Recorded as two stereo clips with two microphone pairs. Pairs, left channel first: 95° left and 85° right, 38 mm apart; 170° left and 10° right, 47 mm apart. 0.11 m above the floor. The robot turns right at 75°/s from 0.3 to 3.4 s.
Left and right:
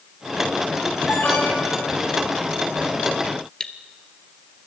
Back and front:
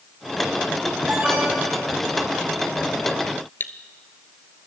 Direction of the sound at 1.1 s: 40° left.